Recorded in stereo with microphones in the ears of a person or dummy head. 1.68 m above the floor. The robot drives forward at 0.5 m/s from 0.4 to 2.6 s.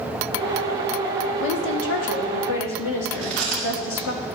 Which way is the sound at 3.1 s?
Centre (ahead or behind).